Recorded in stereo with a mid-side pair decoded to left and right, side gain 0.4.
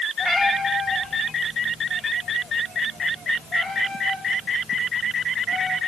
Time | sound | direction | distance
0.2 | a cat meowing | 25° left | 4 m